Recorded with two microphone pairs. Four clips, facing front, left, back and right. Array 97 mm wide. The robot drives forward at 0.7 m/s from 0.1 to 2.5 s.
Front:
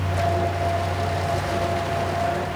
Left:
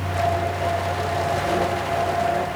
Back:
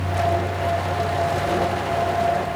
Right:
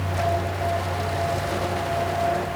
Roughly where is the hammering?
No hammering in this recording.